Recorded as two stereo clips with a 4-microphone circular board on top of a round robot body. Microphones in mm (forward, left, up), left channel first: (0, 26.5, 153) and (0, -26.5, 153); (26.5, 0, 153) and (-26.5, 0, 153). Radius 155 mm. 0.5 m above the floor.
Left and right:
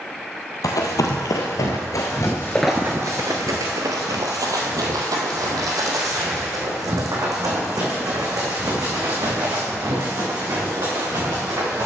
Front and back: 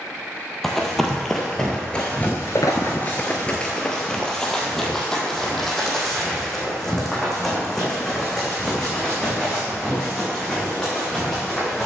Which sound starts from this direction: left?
Running footsteps, at 0.6 s.